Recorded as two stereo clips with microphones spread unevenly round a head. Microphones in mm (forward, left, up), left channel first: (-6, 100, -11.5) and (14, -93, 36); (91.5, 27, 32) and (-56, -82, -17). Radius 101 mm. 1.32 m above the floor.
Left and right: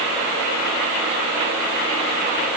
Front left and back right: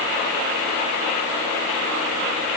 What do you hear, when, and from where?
Only background noise.